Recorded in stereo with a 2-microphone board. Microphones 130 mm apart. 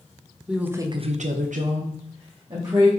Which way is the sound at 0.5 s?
5° right (ahead or behind).